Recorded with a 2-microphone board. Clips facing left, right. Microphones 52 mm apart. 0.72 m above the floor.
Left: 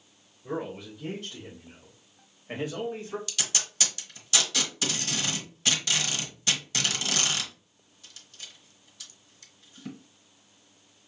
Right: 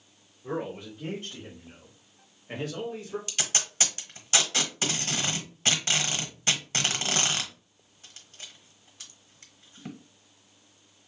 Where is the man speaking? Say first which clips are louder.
Right 1 dB; 50° right (ahead or behind), 2 m; by 3.2 s 40° left (ahead or behind), 1.4 m.